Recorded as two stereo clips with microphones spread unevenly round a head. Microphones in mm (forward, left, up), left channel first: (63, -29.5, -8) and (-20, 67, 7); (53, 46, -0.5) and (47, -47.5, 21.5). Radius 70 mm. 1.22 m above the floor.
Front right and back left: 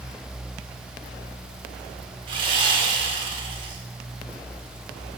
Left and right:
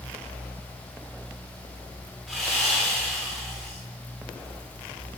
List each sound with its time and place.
2.3 s sawing: straight behind, 1.5 m